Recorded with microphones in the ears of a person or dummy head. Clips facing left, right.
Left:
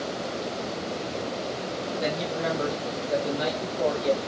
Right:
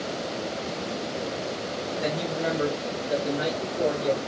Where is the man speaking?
5° right (ahead or behind), 0.7 m; by 4.2 s 10° right (ahead or behind), 1.0 m.